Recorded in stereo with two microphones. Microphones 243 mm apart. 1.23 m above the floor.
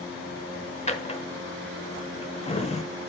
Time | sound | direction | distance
0.9 | a drawer | 25° left (ahead or behind) | 1.0 m